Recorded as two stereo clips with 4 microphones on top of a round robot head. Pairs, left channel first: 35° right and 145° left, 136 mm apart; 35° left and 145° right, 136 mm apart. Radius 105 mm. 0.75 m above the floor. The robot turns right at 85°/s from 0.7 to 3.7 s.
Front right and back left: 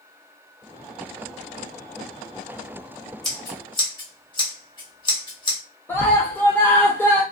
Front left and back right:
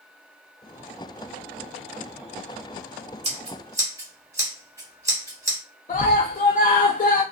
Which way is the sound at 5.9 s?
35° left.